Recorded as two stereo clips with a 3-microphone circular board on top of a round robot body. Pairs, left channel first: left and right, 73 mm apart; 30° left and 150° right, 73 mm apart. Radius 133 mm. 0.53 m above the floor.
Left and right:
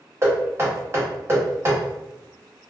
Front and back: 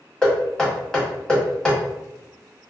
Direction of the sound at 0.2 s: 50° right.